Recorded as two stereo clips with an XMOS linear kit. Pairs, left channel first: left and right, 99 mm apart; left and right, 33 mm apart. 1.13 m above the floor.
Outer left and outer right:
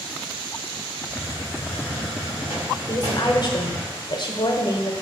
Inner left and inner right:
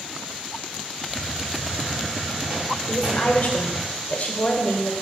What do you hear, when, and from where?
1.1 s a hiss: 30° right (ahead or behind), 1.5 m
2.9 s a woman speaking: 50° left (ahead or behind), 0.6 m